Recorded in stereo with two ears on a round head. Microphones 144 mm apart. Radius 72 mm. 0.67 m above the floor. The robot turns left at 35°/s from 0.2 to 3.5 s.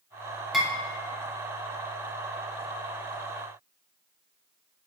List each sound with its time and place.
0.5 s dishes clattering: centre (ahead or behind), 0.8 m; by 0.7 s 5° right (ahead or behind), 0.8 m